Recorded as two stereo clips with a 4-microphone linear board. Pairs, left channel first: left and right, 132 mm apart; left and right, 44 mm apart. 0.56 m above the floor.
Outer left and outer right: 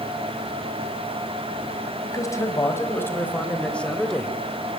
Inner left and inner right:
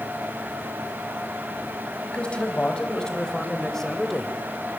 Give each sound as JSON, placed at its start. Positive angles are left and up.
{"t": 2.0, "sound": "a man speaking", "side_deg": 25, "distance_m": 4.0}